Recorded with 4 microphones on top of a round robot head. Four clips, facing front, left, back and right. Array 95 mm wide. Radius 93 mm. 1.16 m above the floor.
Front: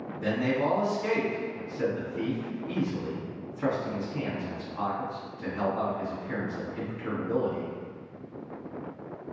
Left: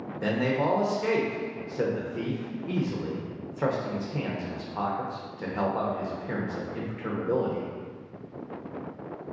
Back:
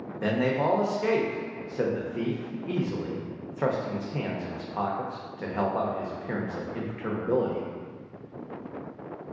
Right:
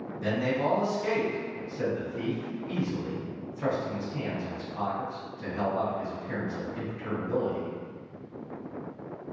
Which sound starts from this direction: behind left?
A man speaking, at 0.2 s.